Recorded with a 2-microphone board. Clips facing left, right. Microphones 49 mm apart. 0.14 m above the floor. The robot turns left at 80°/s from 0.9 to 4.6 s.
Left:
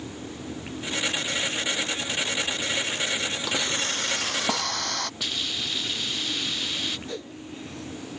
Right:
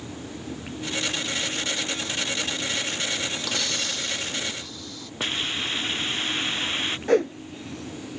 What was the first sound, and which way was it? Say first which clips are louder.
A hiss: left 1 dB; 170° left.